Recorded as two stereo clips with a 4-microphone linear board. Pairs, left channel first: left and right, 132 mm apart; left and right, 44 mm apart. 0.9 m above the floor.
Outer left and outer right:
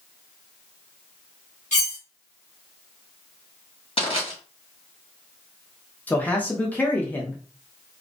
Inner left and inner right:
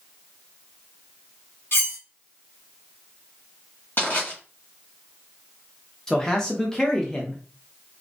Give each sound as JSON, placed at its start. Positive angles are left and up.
{"t": 1.7, "sound": "cutlery clinking", "side_deg": 70, "distance_m": 1.1}
{"t": 4.0, "sound": "crushing", "side_deg": 50, "distance_m": 1.4}
{"t": 6.1, "sound": "a man speaking", "side_deg": 15, "distance_m": 0.6}